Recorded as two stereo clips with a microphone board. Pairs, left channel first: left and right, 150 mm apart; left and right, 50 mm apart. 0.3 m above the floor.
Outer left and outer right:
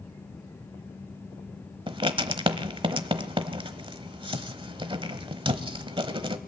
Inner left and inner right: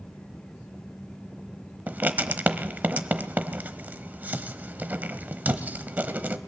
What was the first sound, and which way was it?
Writing, 35° right (ahead or behind).